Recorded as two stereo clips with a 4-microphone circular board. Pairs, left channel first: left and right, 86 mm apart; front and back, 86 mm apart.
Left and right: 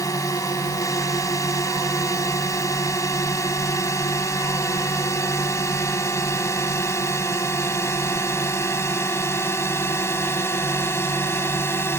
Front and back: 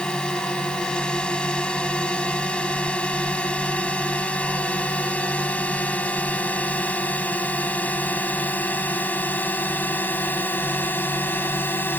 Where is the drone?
75° left; by 12.0 s 50° left.